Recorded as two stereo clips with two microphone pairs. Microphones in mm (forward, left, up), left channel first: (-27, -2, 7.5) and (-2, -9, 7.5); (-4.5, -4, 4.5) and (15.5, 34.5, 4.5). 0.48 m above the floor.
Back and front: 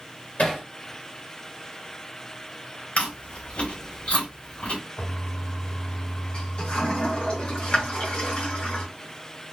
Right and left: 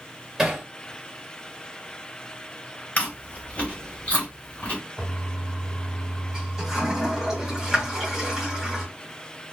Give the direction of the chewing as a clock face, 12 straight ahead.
6 o'clock.